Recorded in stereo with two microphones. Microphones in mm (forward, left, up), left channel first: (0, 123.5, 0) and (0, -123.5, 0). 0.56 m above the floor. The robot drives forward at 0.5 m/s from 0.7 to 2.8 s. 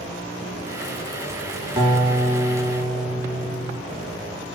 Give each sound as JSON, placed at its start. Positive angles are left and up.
{"t": 1.8, "sound": "a guitar", "side_deg": -20, "distance_m": 2.5}